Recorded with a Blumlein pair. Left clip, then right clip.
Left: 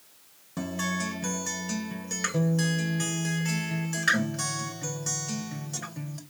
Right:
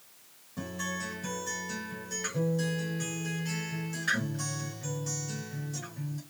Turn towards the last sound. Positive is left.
turn(degrees=60)